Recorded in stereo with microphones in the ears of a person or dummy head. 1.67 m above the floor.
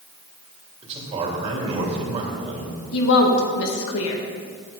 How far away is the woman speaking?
About 1.8 m.